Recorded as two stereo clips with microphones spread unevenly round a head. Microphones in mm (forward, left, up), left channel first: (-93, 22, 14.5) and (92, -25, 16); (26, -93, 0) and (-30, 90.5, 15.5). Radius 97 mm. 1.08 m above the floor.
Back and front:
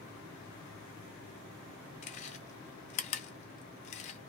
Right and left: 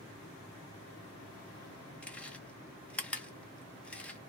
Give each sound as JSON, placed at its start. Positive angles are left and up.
{"t": 2.0, "sound": "chewing", "azimuth_deg": -160, "distance_m": 0.5}